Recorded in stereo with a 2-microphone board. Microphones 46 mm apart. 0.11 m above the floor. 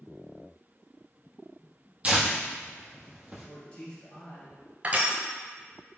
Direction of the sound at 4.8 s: 35° right (ahead or behind).